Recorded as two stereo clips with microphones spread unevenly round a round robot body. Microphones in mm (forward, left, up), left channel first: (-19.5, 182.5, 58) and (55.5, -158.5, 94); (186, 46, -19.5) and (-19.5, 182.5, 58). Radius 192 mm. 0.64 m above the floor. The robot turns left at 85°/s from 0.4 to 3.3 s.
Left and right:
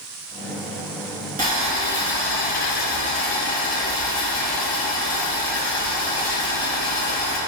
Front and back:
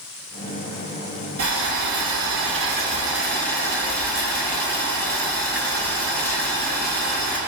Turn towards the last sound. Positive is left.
turn(degrees=50)